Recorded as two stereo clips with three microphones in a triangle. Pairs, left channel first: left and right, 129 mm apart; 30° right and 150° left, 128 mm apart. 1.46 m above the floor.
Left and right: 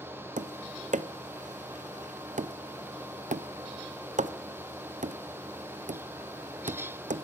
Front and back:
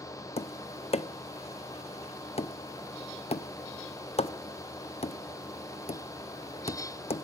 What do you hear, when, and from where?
0.4 s tapping: 70° right, 0.5 m